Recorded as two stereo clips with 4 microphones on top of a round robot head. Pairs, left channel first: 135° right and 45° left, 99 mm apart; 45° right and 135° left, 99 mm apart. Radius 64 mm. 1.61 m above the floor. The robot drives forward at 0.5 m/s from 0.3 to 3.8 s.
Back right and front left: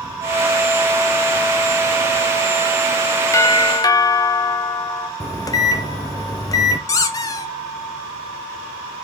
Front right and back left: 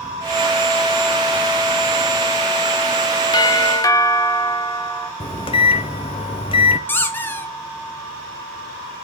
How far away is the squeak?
About 0.5 m.